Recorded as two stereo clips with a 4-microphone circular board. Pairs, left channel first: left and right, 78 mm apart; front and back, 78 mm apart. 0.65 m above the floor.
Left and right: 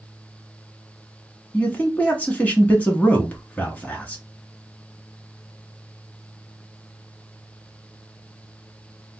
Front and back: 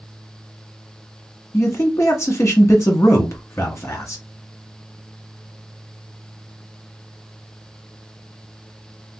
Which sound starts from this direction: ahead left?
A man speaking, at 1.5 s.